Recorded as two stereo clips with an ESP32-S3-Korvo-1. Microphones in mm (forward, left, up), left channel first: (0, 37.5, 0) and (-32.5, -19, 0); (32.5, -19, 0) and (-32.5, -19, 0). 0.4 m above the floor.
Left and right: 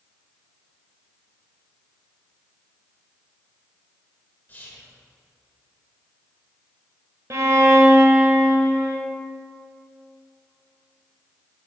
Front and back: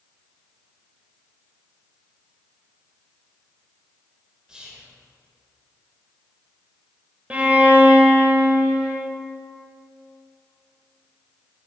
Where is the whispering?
105° left, 1.3 m.